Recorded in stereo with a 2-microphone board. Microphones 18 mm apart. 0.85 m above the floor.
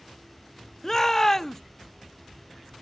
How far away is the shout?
About 0.5 m.